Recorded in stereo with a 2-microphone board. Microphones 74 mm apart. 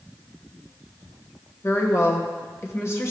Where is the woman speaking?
40° left (ahead or behind), 1.3 m.